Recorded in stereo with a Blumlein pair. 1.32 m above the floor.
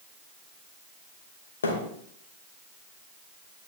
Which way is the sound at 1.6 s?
70° left.